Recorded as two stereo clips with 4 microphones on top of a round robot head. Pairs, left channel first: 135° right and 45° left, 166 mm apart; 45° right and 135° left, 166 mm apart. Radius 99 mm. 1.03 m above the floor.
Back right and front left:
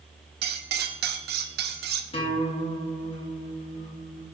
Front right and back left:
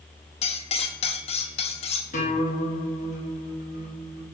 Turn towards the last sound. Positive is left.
turn(degrees=-80)